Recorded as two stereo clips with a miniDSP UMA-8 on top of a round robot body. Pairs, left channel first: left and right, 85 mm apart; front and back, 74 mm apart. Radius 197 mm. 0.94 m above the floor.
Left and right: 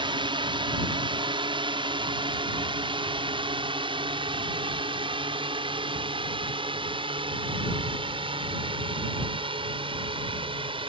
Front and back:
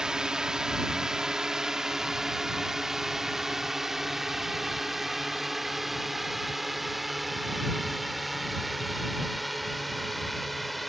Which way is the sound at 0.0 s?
100° right.